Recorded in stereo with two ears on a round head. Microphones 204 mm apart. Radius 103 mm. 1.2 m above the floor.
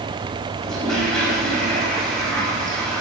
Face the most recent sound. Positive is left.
turn(degrees=5)  # may be behind; listen again after turning